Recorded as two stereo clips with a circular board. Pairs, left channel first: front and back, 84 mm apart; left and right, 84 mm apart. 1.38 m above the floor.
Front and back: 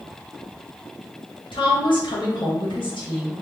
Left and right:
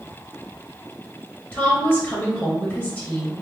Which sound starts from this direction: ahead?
A woman speaking, at 1.5 s.